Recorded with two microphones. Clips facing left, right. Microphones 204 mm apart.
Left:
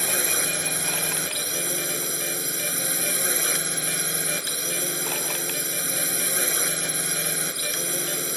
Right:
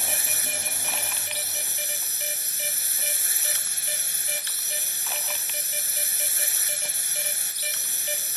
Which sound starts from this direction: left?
A drone, at 0.0 s.